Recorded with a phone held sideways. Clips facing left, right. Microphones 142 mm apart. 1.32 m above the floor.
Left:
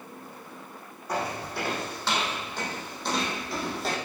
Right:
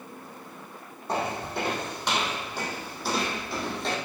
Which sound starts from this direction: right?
Footsteps, at 1.1 s.